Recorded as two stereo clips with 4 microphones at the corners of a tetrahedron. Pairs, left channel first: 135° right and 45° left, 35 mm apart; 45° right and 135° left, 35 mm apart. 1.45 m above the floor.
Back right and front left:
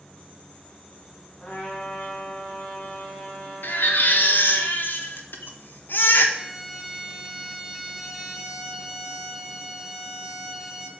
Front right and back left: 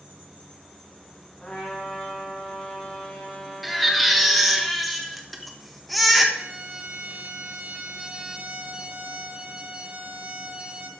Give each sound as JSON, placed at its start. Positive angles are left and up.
{"t": 1.4, "sound": "a trumpet", "azimuth_deg": -105, "distance_m": 3.0}
{"t": 3.6, "sound": "a baby crying", "azimuth_deg": -135, "distance_m": 1.3}
{"t": 6.3, "sound": "a violin", "azimuth_deg": 120, "distance_m": 1.4}